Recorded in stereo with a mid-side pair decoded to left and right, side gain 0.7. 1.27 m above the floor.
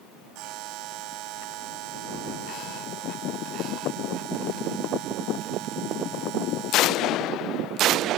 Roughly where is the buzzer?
Ahead right.